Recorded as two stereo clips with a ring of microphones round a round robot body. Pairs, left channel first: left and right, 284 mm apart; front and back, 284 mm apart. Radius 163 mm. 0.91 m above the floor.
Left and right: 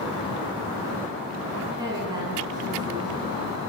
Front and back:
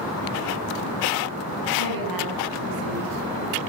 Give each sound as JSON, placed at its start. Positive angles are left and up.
{"t": 1.8, "sound": "a woman speaking", "azimuth_deg": -170, "distance_m": 9.0}